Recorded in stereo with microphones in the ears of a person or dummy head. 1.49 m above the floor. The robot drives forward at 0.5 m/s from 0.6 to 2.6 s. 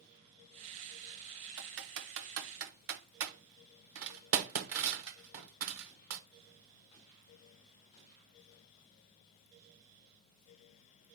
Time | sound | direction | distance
1.6 | typing on a keyboard | 60° right (ahead or behind) | 1.1 m